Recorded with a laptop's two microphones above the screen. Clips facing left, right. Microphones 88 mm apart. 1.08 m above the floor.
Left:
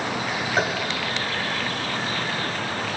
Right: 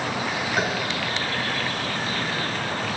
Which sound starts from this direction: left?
Tapping, at 0.6 s.